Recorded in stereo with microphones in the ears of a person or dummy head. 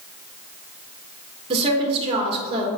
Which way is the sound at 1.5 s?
30° right (ahead or behind).